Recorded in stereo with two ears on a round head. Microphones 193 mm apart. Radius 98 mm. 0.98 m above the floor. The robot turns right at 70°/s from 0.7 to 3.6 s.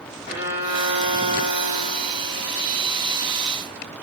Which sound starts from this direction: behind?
A violin, at 0.3 s.